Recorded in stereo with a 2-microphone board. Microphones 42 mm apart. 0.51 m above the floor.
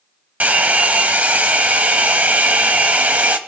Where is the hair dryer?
40° right (ahead or behind), 0.8 m.